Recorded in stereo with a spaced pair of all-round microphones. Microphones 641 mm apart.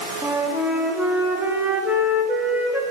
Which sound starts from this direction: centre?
A flute, at 0.2 s.